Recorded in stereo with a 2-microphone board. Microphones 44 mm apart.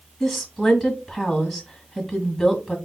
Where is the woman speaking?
5° right (ahead or behind), 1.5 m.